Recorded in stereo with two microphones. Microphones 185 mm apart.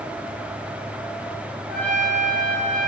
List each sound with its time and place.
1.7 s a trumpet: 65° left (ahead or behind), 2 m